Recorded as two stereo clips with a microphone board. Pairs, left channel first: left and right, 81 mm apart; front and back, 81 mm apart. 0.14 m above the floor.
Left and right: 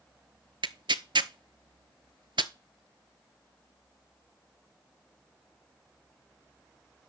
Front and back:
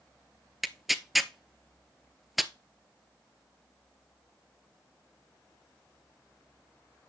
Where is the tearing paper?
90° right, 0.6 m.